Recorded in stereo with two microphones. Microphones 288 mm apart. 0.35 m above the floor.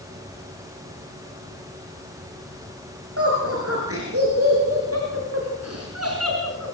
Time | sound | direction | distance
3.2 | laughter | 45° right (ahead or behind) | 7.5 m